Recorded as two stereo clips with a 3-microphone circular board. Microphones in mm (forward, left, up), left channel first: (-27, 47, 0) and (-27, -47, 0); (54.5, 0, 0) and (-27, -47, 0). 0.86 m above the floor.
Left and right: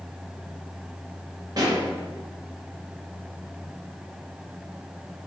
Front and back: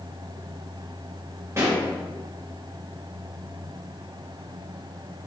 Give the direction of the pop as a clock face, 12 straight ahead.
3 o'clock.